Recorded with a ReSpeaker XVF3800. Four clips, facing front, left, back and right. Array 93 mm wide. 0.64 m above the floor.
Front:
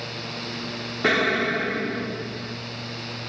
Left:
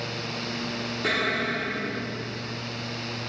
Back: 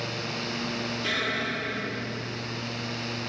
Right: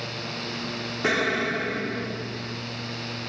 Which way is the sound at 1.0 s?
20° right.